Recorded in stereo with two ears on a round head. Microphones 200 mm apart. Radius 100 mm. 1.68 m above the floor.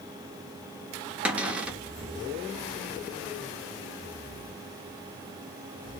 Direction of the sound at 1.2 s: 5° right (ahead or behind).